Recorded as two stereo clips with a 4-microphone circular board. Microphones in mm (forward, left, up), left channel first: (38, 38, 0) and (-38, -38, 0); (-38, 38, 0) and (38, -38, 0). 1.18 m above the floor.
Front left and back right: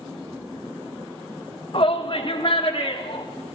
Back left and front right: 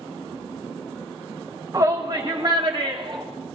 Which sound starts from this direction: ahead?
A shout, at 1.7 s.